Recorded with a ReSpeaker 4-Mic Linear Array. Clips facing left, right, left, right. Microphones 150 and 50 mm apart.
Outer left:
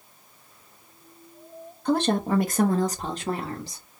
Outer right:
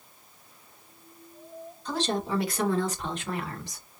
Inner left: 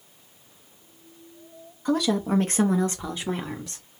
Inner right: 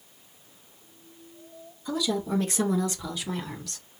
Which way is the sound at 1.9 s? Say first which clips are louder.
Outer left 6 dB, inner left 5 dB; 60° left (ahead or behind).